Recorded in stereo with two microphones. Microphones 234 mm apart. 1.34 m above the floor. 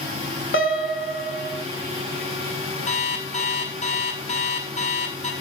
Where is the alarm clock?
30° left (ahead or behind), 7 m.